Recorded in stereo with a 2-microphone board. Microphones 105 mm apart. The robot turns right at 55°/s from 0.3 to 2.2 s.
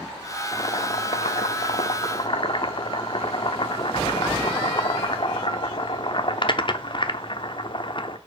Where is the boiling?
35° left, 0.6 m; by 8.2 s 130° left, 0.6 m.